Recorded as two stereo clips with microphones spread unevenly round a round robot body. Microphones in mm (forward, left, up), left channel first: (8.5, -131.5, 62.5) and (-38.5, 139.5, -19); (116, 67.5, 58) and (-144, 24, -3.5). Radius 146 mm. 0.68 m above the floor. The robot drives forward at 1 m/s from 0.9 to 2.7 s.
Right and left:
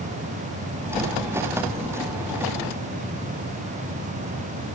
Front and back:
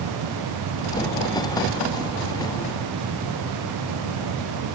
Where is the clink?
I don't hear a clink.